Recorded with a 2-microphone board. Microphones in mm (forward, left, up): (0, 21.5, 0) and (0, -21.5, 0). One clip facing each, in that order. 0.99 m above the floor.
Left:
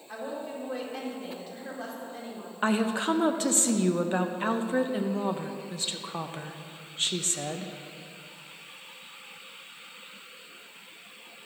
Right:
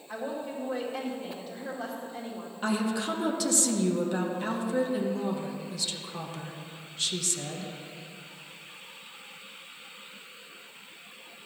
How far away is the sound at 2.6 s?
About 0.8 m.